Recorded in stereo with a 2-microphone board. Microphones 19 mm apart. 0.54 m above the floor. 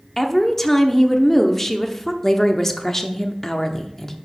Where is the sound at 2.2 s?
20° left (ahead or behind), 0.9 m.